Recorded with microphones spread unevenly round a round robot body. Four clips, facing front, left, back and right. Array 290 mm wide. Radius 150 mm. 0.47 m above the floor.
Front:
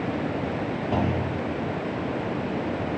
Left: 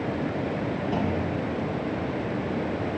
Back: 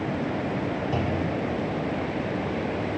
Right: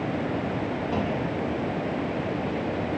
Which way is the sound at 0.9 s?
25° left.